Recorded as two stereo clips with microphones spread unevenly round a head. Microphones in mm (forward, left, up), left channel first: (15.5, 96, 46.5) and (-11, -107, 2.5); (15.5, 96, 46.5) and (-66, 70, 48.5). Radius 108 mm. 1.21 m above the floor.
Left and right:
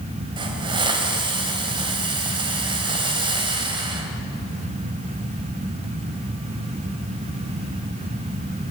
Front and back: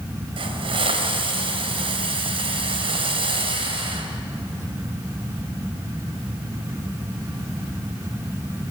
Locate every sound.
0.4 s a hiss: 170° right, 3 m